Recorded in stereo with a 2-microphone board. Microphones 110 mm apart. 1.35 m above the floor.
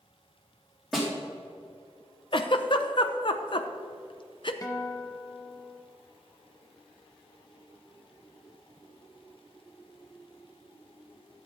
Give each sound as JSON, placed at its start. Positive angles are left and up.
{"t": 0.9, "sound": "a snare drum", "side_deg": 0, "distance_m": 3.5}
{"t": 2.3, "sound": "a giggle", "side_deg": 50, "distance_m": 0.7}
{"t": 4.6, "sound": "a guitar", "side_deg": 35, "distance_m": 0.9}